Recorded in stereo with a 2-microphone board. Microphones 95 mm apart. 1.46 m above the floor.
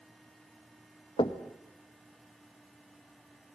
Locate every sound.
1.2 s knocking: 65° left (ahead or behind), 1.4 m